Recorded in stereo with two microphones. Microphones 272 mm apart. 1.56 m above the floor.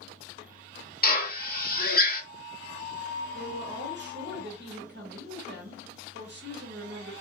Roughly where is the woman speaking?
Right.